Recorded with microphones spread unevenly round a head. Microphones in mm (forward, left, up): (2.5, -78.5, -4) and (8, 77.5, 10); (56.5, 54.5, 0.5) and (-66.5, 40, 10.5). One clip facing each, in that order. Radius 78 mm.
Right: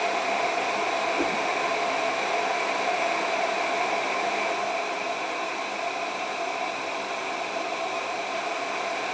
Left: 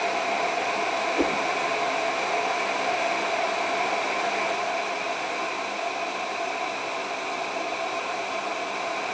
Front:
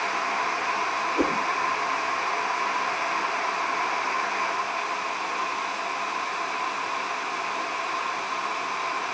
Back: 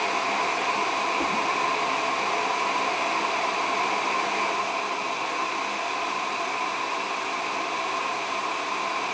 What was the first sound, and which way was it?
A whoosh, 20° left.